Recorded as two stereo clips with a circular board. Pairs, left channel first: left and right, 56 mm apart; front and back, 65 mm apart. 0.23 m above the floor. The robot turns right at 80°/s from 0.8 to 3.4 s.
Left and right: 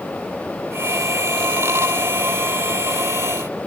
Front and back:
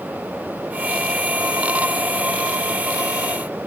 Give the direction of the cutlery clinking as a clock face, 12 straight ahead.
No cutlery clinking in this recording.